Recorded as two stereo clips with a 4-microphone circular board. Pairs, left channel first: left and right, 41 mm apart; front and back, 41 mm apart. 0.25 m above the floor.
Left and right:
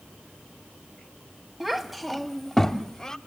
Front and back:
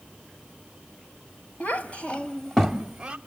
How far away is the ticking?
I don't hear ticking.